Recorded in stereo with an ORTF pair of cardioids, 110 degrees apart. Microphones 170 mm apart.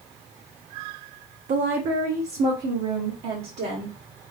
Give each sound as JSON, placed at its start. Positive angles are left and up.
{"t": 1.5, "sound": "a woman speaking", "azimuth_deg": -50, "distance_m": 0.5}